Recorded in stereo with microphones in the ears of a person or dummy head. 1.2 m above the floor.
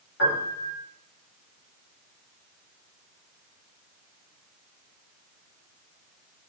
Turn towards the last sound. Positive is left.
turn(degrees=60)  # may be behind; listen again after turning